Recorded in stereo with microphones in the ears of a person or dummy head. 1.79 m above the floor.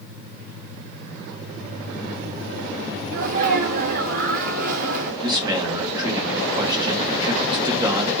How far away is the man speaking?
About 1.9 m.